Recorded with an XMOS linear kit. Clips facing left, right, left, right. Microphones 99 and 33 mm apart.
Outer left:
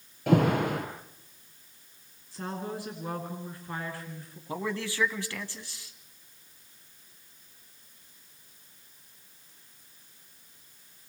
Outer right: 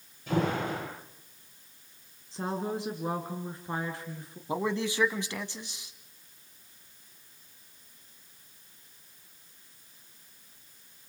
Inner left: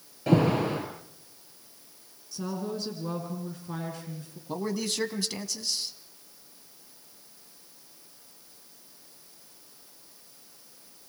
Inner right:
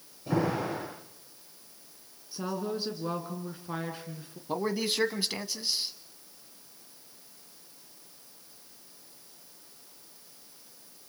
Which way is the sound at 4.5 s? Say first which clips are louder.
Outer right 3 dB, inner right 1 dB; 20° right (ahead or behind).